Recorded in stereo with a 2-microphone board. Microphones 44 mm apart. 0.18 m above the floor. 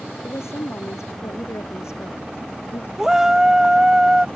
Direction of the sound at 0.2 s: 80° left.